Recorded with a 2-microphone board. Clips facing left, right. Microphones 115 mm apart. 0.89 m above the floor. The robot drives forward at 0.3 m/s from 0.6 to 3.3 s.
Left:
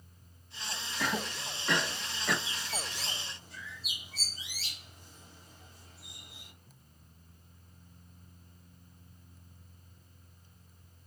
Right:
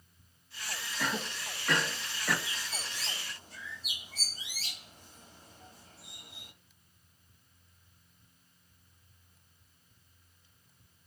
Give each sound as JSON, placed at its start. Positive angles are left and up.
{"t": 1.0, "sound": "a cough", "side_deg": 5, "distance_m": 1.1}
{"t": 2.5, "sound": "a bird", "side_deg": -40, "distance_m": 2.0}